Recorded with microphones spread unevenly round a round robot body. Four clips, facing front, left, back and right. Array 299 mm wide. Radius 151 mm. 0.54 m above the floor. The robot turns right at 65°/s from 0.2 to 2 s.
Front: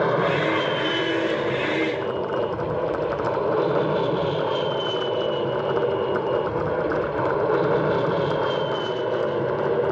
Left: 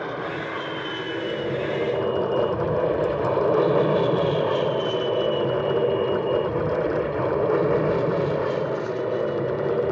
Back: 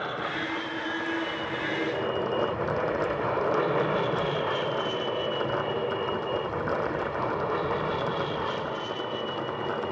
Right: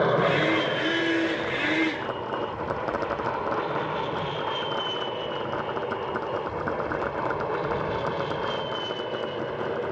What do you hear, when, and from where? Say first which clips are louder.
0.0 s an aircraft: right 7 dB, front 11 dB; 35° right; by 9.9 s 45° left